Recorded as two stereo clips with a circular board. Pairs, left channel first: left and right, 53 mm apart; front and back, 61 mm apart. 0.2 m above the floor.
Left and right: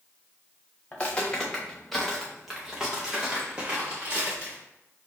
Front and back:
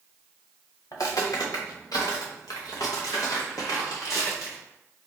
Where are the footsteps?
25° left, 1.6 m; by 4.6 s 30° right, 2.5 m.